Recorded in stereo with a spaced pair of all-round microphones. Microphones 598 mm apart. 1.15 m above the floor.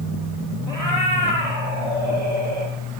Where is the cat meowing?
70° right (ahead or behind), 5.5 m.